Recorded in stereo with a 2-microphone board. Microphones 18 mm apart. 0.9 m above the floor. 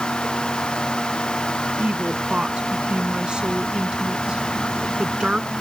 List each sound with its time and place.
1.8 s a woman speaking: 50° right (ahead or behind)